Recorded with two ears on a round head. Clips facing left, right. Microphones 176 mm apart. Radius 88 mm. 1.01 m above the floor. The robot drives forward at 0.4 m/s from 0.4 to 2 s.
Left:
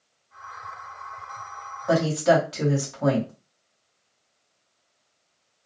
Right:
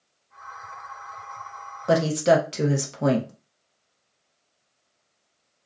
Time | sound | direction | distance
1.9 | a woman speaking | 30° right (ahead or behind) | 0.7 m